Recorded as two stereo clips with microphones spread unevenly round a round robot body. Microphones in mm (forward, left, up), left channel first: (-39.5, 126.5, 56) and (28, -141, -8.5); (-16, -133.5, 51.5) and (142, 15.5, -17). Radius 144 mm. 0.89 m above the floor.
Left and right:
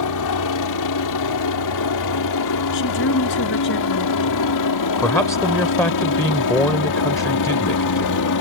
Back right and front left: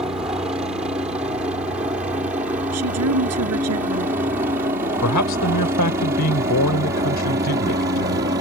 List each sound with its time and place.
0.0 s a helicopter: 120° left; by 8.4 s 105° left
2.7 s a woman speaking: 55° left
5.0 s a man speaking: 175° right